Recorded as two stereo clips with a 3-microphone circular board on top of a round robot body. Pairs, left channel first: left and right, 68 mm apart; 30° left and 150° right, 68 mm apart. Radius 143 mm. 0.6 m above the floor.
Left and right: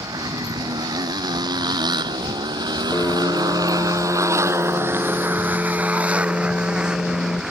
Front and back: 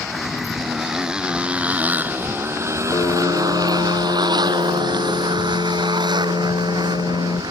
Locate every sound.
0.0 s a motorcycle: 60° right; by 7.5 s 175° right
2.9 s a piano: 30° left